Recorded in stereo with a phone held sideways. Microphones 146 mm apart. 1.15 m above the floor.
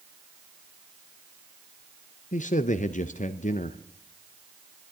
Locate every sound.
2.3 s a man speaking: 60° left (ahead or behind), 0.5 m